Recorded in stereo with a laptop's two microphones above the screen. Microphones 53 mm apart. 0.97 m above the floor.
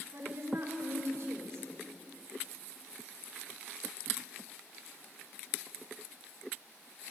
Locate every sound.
0.1 s a woman speaking: 65° right (ahead or behind), 3 m